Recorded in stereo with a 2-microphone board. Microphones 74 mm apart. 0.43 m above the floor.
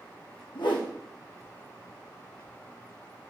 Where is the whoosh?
80° left, 5.5 m.